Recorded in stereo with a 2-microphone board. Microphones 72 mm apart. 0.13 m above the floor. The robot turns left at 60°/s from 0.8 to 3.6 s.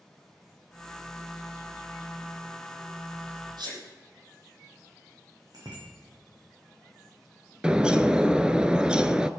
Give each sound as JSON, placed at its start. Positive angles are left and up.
{"t": 3.6, "sound": "a sneeze", "side_deg": -70, "distance_m": 5.5}
{"t": 5.5, "sound": "a bicycle bell", "side_deg": -60, "distance_m": 7.0}
{"t": 7.6, "sound": "a bird", "side_deg": -15, "distance_m": 0.7}